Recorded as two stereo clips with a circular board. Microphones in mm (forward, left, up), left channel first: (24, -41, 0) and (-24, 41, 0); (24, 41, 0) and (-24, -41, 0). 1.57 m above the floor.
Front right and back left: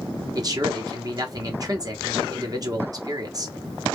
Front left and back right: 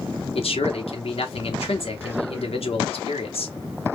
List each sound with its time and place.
0.3 s a man speaking: 70° left, 1.3 m